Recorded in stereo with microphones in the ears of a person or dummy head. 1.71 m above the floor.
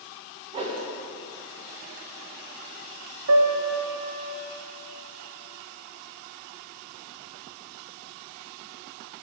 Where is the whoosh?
30° right (ahead or behind), 1.1 m.